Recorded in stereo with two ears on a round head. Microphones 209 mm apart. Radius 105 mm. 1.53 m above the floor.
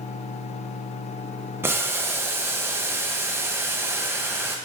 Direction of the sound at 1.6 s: 10° right (ahead or behind).